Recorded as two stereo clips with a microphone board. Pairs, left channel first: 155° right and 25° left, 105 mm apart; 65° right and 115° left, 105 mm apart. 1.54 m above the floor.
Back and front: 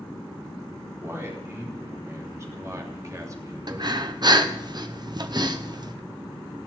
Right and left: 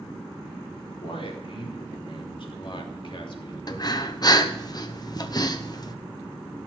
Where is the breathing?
20° right, 0.9 m.